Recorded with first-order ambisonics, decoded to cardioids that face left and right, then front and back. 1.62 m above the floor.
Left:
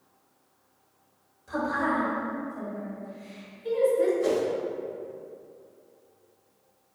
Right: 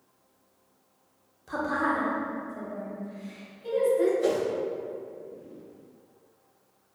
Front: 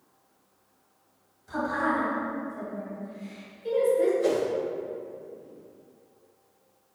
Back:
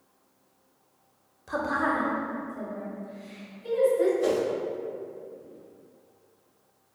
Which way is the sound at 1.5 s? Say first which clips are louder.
Even, back 1 dB; 155° right.